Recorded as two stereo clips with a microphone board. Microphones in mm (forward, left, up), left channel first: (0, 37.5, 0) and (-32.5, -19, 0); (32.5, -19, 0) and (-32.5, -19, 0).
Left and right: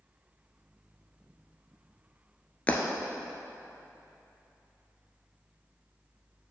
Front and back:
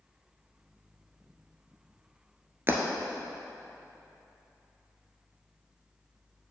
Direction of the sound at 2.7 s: 125° left.